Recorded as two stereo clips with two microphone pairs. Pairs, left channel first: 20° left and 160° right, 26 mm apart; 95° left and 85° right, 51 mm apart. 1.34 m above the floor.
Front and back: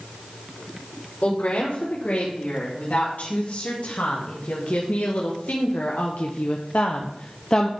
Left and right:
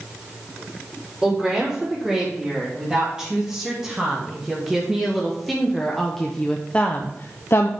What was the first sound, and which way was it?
A woman speaking, 10° right.